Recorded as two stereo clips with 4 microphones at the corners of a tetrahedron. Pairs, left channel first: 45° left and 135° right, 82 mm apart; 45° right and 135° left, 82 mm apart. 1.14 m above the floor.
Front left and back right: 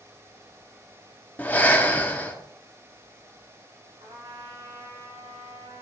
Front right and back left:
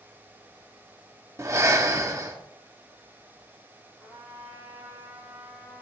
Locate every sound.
1.4 s breathing: 105° left, 0.9 m
4.0 s a trumpet: 140° right, 2.5 m